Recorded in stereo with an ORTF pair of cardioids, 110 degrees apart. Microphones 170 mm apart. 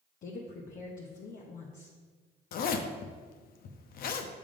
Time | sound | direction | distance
0.2 | a woman speaking | 50° left | 1.0 m
2.5 | a zipper | 60° left | 0.7 m